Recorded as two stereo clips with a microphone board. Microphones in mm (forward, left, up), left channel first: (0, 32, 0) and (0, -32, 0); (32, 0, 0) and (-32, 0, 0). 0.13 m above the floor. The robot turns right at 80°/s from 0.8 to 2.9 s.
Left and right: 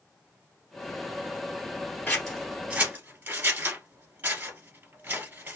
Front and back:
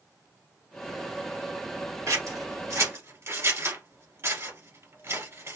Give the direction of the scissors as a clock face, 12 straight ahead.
7 o'clock.